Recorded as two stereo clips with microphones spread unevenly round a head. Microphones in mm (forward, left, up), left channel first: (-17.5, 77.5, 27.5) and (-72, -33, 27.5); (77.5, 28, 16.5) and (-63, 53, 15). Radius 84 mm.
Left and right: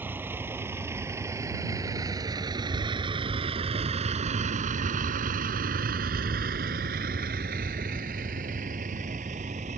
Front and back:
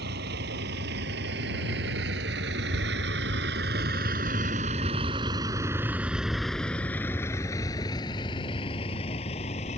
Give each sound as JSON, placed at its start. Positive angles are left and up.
{"t": 0.0, "sound": "a vehicle", "azimuth_deg": 170}